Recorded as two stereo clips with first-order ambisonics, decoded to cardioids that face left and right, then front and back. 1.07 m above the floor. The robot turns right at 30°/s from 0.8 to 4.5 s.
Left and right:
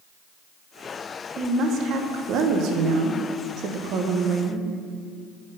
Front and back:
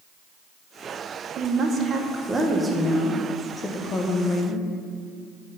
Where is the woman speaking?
135° right, 0.9 m; by 4.7 s 40° right, 0.9 m.